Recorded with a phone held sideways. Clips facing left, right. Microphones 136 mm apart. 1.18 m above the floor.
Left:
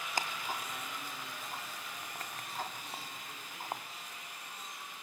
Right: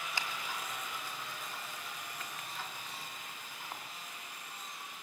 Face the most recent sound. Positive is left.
turn(degrees=45)  # may be behind; listen again after turning